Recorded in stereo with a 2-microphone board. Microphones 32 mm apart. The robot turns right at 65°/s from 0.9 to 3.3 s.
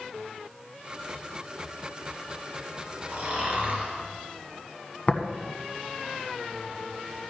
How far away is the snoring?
About 3 m.